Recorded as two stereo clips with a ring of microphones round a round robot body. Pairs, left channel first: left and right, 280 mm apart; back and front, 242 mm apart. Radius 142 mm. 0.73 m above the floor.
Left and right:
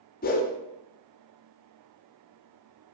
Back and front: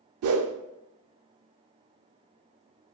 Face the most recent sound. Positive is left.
turn(degrees=30)